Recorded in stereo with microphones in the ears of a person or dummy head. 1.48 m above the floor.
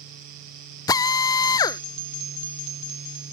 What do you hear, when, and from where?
0.9 s a drill: 20° left (ahead or behind)